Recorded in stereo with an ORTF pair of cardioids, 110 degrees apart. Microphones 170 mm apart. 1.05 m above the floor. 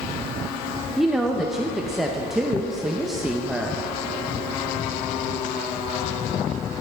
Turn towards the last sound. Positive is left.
turn(degrees=0)